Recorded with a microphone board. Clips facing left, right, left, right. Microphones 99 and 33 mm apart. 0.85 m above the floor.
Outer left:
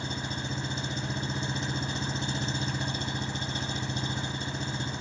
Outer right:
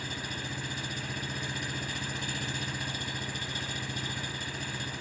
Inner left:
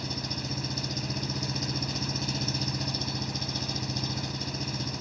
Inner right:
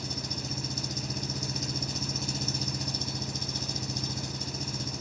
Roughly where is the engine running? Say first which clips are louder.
Outer left 3 dB, inner left 2 dB; left.